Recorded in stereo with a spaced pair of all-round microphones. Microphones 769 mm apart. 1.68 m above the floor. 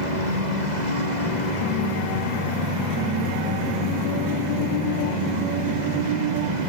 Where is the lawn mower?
65° right (ahead or behind).